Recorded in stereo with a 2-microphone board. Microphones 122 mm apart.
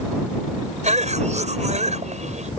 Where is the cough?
65° right (ahead or behind).